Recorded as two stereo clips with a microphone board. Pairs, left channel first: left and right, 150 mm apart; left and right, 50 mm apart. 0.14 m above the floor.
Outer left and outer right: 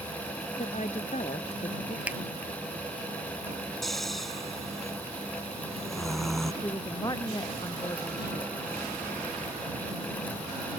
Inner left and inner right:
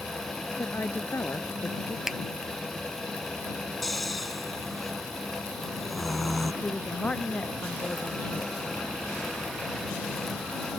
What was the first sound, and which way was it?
A woman speaking, 50° left (ahead or behind).